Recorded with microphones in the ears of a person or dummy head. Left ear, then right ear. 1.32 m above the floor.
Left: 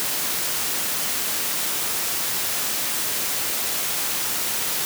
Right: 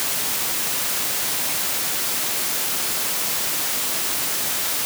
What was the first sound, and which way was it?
Only background noise.